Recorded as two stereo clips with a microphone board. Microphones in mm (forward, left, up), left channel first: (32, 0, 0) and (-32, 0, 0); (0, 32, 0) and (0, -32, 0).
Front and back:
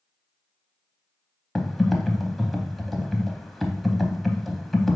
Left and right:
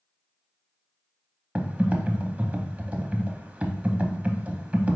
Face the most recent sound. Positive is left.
turn(degrees=-85)